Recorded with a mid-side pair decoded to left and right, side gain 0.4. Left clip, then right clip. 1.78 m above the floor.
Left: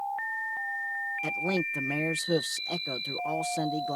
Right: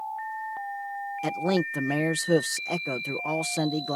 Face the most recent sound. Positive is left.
turn(degrees=-50)